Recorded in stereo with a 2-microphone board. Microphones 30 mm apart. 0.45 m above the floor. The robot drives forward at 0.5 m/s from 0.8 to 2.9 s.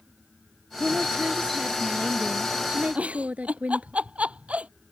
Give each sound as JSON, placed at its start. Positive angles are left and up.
{"t": 0.8, "sound": "a woman speaking", "side_deg": -60}
{"t": 3.0, "sound": "a giggle", "side_deg": -50}